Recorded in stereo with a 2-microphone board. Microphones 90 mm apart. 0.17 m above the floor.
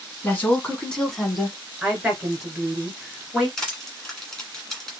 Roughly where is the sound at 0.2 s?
Left.